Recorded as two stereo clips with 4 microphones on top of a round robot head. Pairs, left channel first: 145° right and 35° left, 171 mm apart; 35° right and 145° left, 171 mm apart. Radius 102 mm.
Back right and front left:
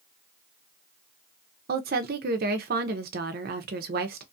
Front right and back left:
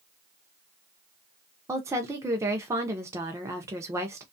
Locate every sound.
1.7 s a woman speaking: 70° left, 0.5 m